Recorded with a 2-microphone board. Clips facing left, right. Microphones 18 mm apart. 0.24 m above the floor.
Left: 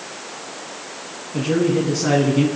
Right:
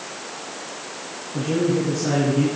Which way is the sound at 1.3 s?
60° left (ahead or behind).